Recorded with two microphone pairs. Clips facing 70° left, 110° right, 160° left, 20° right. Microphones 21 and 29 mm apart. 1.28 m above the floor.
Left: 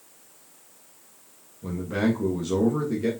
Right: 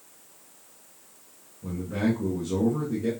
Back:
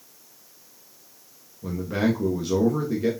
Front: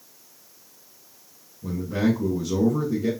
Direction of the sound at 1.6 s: 120° left.